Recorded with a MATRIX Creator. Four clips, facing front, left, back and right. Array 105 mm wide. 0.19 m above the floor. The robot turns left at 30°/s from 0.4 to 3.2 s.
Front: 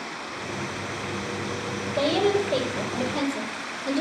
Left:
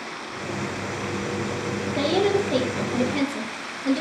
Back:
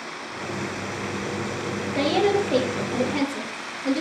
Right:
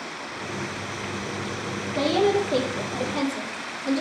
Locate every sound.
1.9 s a woman speaking: straight behind, 3.5 m; by 4.0 s 140° left, 3.5 m